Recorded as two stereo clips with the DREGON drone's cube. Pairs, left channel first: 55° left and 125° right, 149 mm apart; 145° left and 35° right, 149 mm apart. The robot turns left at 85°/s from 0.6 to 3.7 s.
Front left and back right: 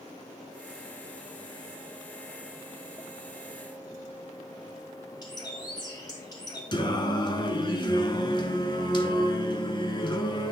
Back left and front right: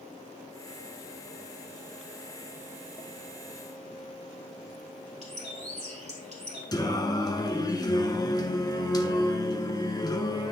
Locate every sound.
5.2 s a bird: 5° right, 2.5 m
6.7 s singing: 95° left, 0.7 m